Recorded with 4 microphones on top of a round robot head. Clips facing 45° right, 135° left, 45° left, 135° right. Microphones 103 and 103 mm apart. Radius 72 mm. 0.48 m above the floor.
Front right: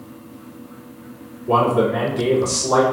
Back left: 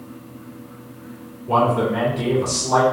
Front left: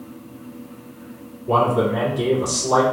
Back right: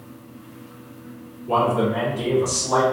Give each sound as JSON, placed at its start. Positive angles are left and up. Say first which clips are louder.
{"t": 1.5, "sound": "a man speaking", "louder": "front right 2 dB, front left 2 dB", "azimuth_deg": -10, "distance_m": 1.8}